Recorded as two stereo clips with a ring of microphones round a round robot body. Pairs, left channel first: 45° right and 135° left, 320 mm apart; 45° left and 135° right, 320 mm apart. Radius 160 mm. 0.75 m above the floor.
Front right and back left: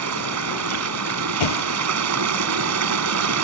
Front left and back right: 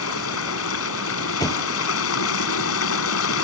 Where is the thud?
35° right.